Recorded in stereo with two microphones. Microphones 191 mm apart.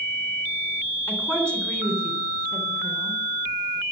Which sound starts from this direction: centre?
A woman speaking, at 1.1 s.